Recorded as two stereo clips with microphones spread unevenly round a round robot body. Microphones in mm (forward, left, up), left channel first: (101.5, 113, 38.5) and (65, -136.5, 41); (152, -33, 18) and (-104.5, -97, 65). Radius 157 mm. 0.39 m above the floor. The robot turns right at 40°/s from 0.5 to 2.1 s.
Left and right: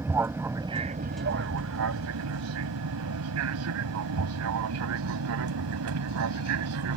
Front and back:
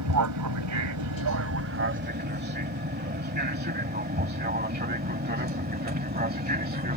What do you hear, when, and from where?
0.0 s an aircraft: straight behind; by 7.0 s 110° right